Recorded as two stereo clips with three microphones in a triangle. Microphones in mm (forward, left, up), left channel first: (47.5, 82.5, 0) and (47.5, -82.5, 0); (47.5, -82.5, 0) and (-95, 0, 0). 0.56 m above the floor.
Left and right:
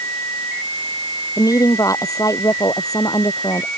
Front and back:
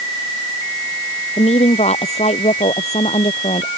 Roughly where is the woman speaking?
Ahead.